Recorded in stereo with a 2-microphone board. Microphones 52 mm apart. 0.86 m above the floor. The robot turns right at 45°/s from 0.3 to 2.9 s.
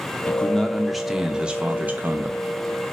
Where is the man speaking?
150° left, 0.6 m; by 2.4 s 115° right, 0.6 m.